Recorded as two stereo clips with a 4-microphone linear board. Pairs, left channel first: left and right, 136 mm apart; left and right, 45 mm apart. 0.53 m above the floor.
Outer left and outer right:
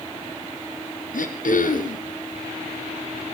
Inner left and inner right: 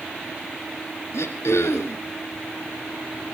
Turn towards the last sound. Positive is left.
turn(degrees=85)